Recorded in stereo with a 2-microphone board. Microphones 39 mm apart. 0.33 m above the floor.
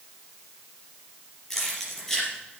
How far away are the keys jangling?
About 5 m.